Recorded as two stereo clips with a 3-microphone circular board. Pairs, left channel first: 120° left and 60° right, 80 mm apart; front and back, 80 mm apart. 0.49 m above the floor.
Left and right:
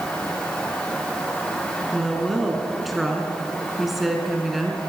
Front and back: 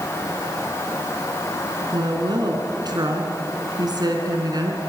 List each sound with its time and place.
1.9 s a woman speaking: 150° right, 4.5 m